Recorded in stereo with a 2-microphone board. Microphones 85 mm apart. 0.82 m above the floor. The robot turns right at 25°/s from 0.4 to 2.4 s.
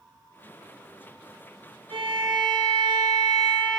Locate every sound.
1.9 s a violin: 75° right (ahead or behind), 0.9 m; by 3.8 s 60° right (ahead or behind), 0.9 m